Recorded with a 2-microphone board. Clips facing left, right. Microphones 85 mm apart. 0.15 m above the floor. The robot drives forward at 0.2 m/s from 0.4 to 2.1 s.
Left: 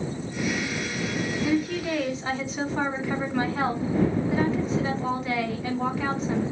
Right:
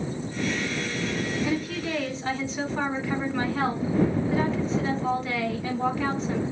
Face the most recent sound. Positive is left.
turn(degrees=5)  # may be behind; listen again after turning